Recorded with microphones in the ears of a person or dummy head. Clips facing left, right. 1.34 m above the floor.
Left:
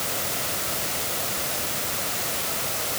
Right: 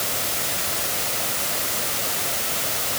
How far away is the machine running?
No machine running in this recording.